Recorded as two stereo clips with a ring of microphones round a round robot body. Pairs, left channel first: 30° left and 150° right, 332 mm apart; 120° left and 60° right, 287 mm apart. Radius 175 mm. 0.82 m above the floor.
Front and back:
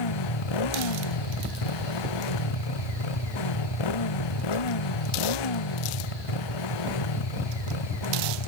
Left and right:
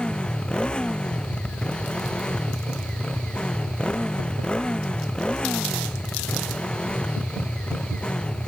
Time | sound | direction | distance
0.0 | a motorcycle | 35° left | ?